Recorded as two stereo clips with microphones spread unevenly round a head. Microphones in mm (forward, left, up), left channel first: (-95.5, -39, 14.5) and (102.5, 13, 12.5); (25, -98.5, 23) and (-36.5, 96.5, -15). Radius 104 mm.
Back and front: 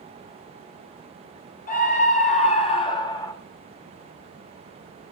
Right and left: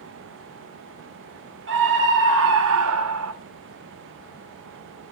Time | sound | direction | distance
1.7 | a scream | 140° left | 4 m